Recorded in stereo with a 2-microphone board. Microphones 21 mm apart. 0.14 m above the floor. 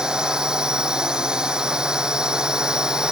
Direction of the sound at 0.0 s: 35° right (ahead or behind).